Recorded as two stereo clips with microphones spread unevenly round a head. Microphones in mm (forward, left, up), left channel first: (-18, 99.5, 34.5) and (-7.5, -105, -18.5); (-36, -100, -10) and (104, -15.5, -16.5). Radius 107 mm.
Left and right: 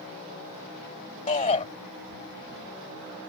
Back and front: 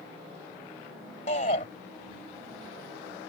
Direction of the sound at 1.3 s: 150° left.